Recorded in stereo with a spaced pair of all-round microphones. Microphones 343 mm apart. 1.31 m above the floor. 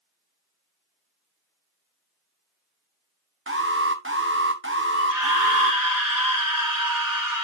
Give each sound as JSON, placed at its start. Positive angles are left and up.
{"t": 3.5, "sound": "an alarm", "side_deg": -40, "distance_m": 1.3}
{"t": 4.9, "sound": "a scream", "side_deg": -80, "distance_m": 4.5}